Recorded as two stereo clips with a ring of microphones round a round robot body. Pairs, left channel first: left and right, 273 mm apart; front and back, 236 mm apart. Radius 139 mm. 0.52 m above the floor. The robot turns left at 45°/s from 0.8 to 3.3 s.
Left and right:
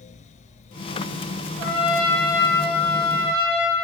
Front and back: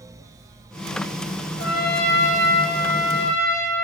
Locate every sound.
1.6 s a trumpet: 30° left, 5 m; by 3.9 s 50° right, 5 m